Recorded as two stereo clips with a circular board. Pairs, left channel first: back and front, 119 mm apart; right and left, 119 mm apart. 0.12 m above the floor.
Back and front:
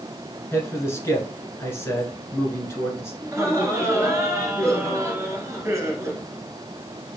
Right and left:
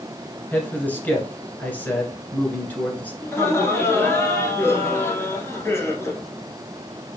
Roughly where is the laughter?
Ahead right.